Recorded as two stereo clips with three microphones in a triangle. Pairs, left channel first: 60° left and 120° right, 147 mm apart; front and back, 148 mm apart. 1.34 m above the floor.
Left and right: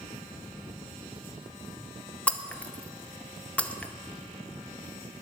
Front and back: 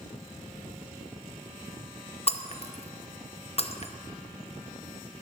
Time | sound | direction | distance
2.3 | breaking glass | 15° right | 0.8 m